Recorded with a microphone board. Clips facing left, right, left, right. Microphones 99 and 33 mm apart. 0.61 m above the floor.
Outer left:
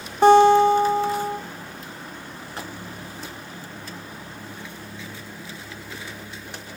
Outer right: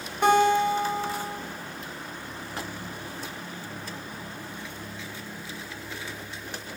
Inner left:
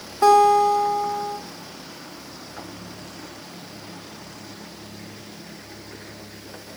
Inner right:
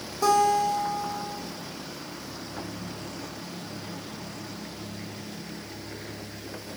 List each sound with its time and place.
0.2 s a guitar: 35° left (ahead or behind), 0.8 m